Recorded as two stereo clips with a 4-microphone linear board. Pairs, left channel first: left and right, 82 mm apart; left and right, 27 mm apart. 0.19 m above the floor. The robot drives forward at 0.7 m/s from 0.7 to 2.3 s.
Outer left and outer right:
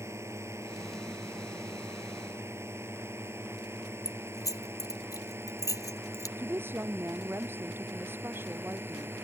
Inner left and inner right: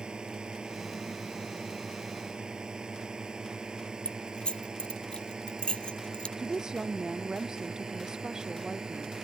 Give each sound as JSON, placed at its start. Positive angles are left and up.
{"t": 0.0, "sound": "a drone", "side_deg": -35}
{"t": 4.0, "sound": "keys jangling", "side_deg": 45}
{"t": 6.4, "sound": "a woman speaking", "side_deg": -30}